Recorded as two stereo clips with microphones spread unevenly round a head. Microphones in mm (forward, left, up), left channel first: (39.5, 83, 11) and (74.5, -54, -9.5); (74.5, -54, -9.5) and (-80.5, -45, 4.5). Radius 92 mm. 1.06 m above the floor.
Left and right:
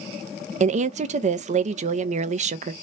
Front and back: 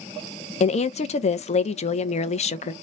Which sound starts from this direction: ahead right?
A woman speaking, at 0.6 s.